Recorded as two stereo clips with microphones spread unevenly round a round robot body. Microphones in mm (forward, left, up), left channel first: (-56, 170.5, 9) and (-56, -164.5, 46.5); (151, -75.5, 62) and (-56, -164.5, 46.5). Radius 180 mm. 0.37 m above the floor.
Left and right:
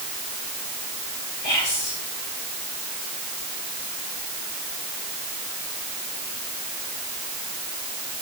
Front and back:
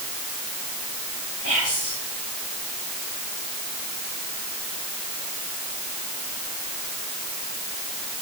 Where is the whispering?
85° left, 4.5 m.